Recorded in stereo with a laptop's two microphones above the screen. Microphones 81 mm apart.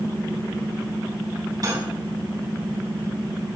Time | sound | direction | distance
1.6 | cutlery clinking | 50° right (ahead or behind) | 5 m